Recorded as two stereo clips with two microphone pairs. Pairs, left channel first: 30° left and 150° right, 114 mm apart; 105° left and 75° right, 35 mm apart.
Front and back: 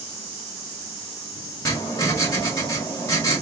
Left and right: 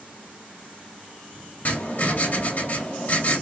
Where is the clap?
No clap in this recording.